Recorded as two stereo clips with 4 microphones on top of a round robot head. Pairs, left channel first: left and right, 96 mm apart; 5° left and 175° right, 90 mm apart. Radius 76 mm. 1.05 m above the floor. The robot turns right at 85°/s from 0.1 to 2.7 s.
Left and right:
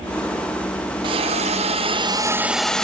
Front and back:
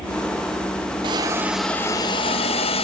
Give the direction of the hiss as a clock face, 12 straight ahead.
5 o'clock.